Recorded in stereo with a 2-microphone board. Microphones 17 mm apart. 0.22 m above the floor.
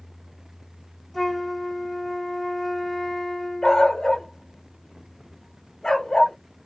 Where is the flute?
Centre (ahead or behind), 1.4 m.